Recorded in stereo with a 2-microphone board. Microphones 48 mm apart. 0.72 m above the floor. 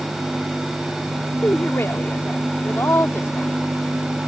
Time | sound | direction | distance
1.4 | a woman speaking | 65° left (ahead or behind) | ?